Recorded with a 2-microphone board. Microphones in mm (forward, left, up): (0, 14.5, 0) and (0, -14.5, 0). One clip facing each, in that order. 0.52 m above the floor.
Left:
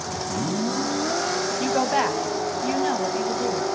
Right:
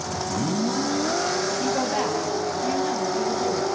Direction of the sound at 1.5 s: 30° left (ahead or behind).